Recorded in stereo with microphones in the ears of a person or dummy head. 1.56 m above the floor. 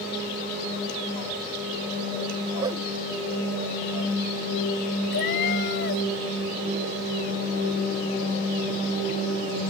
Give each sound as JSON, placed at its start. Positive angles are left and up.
{"t": 2.6, "sound": "a whoosh", "side_deg": -15}
{"t": 5.1, "sound": "a cat meowing", "side_deg": 50}